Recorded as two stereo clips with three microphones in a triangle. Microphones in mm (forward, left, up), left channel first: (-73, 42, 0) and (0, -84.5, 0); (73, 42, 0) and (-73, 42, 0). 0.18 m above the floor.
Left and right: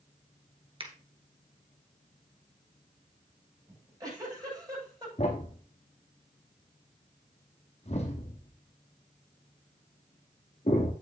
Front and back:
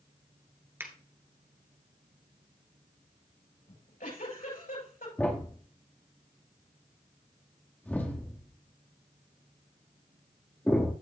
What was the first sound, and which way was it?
A finger snap, 110° right.